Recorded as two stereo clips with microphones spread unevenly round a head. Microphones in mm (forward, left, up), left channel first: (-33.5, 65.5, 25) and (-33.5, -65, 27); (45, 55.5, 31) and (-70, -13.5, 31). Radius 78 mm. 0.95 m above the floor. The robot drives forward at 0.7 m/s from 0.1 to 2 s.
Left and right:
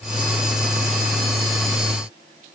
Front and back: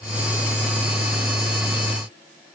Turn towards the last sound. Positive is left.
No sound to turn to.